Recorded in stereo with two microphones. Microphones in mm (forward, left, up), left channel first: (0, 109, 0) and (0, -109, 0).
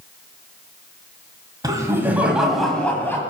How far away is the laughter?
About 1.3 m.